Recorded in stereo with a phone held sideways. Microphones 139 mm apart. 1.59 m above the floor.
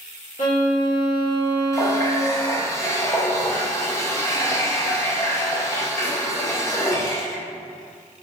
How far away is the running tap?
About 0.5 m.